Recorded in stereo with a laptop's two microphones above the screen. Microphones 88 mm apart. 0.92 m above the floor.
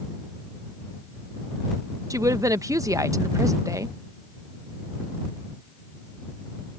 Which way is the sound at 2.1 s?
40° right (ahead or behind).